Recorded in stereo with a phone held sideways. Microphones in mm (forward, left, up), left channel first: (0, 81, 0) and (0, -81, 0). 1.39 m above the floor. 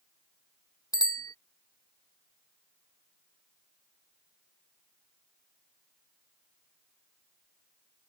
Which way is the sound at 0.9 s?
25° left (ahead or behind).